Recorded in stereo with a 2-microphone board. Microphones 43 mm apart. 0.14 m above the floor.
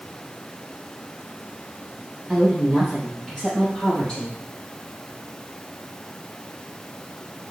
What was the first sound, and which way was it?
A woman speaking, 20° right (ahead or behind).